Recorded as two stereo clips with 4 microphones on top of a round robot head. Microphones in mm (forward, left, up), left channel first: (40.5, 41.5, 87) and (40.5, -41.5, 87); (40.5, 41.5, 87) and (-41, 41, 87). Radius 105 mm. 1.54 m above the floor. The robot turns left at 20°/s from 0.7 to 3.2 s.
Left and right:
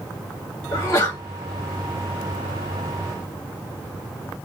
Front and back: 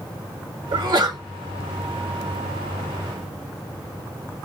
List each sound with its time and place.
0.7 s a sneeze: 155° left, 0.8 m; by 1.2 s 145° left, 0.8 m